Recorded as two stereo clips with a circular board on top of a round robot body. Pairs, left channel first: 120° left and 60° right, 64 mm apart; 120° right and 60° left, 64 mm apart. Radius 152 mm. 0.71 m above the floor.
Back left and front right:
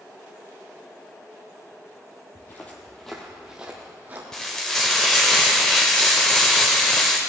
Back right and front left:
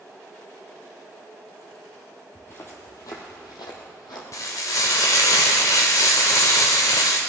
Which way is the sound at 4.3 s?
160° right.